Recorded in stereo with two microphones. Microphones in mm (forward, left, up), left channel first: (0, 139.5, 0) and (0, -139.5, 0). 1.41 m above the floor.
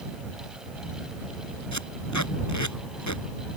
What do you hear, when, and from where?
1.7 s tape being pulled: 90° left